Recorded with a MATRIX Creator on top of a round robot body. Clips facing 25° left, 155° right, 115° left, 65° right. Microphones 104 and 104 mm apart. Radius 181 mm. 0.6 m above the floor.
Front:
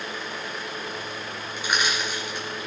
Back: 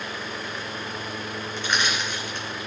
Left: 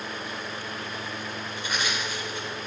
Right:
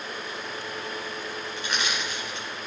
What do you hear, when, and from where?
1.6 s crushing: 55° right, 2.5 m